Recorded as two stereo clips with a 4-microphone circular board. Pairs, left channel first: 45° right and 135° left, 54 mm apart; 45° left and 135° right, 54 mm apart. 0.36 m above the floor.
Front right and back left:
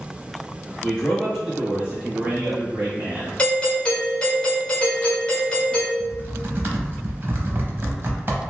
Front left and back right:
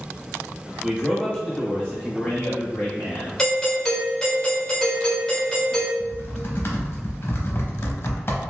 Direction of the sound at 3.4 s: 20° right.